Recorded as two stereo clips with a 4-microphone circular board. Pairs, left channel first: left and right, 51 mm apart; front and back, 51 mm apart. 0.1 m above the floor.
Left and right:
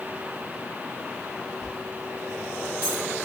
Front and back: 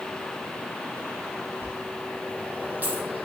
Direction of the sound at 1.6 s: 130° left.